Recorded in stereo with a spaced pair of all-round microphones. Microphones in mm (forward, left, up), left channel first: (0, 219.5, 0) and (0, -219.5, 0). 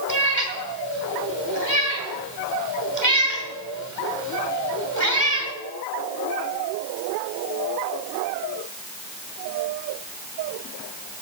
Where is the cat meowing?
40° right (ahead or behind), 2.5 m.